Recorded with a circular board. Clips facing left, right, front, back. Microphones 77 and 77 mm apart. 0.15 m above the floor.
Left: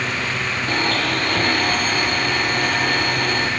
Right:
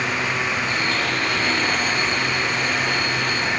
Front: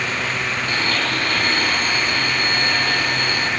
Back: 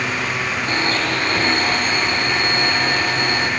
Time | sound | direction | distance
0.7 | a blender | 120° left | 5 m